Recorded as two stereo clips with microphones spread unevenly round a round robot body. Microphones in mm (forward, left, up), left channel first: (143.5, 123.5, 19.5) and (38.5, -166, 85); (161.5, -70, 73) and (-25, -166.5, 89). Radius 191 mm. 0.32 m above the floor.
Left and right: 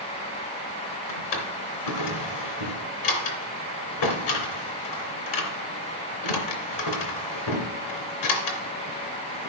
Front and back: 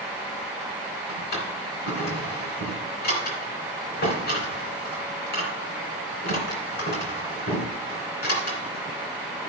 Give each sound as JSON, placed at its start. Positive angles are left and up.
{"t": 1.1, "sound": "a drawer", "azimuth_deg": 80, "distance_m": 2.5}